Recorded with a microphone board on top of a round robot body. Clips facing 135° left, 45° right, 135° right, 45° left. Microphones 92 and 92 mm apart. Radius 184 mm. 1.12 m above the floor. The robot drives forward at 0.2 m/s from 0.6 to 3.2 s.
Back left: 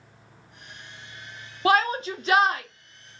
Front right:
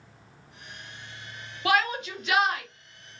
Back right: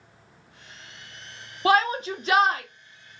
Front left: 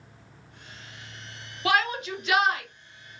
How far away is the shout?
About 0.7 m.